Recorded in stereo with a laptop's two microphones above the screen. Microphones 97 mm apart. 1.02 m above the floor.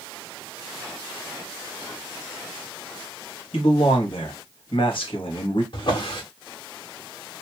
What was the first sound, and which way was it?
A man speaking, 65° left (ahead or behind).